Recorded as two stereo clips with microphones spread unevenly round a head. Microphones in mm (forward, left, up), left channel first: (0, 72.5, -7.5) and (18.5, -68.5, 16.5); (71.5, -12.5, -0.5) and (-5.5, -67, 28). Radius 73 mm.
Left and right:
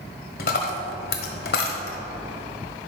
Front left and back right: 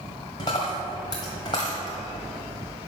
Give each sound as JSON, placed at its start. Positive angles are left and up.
{"t": 0.4, "sound": "a dropped coin", "azimuth_deg": 105, "distance_m": 1.2}